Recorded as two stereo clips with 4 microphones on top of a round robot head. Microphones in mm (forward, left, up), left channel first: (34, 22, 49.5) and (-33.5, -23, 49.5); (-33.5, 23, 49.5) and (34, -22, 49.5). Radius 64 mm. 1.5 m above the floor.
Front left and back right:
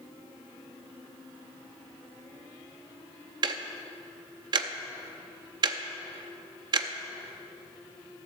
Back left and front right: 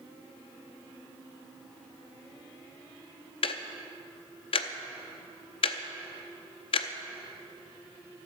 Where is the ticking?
175° left, 0.6 m.